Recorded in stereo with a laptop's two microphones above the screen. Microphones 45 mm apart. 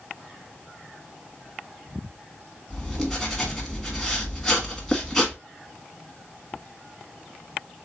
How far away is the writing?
About 1.3 m.